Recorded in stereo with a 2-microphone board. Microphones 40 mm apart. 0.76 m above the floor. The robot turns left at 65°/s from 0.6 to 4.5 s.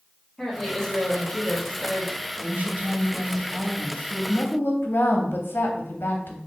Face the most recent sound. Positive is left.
turn(degrees=105)